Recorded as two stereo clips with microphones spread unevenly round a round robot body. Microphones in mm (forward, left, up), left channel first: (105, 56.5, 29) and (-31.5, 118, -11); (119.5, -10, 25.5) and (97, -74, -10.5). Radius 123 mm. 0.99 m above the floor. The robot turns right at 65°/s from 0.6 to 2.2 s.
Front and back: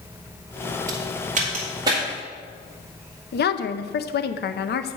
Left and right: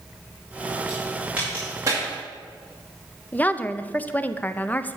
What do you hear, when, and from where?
0.9 s a crack: 155° left, 1.8 m; by 2.0 s 130° right, 1.8 m
3.3 s a woman speaking: 10° right, 0.7 m